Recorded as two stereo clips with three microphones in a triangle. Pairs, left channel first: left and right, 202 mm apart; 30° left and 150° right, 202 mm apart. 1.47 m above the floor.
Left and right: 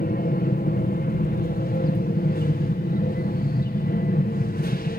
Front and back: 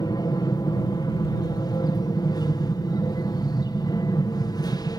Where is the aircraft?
95° left.